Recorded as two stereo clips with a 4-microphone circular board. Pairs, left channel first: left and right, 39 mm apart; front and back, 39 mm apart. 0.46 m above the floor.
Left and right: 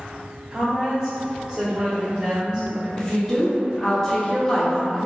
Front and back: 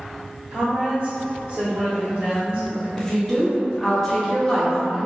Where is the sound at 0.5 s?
140° right, 1.7 m.